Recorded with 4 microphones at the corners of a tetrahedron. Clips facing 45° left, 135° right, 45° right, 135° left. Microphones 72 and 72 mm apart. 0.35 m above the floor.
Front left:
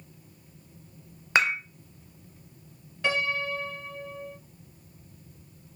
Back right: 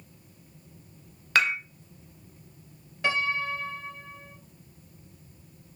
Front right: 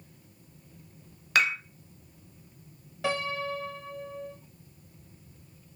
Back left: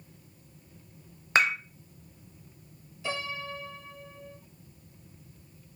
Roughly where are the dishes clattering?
Left.